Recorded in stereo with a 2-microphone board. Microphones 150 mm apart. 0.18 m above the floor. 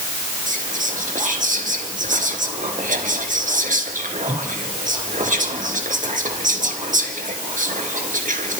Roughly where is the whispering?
Right.